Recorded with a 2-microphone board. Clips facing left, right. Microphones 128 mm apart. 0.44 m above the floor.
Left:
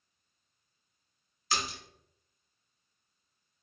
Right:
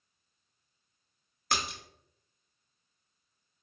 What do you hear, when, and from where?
1.5 s a splash: 55° right (ahead or behind), 0.8 m